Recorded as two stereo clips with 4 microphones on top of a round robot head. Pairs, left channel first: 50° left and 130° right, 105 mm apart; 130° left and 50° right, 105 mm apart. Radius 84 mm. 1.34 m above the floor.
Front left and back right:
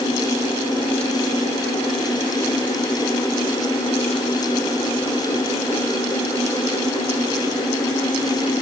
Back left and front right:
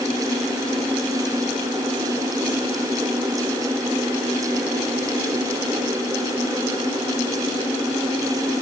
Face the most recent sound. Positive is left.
No sound to turn to.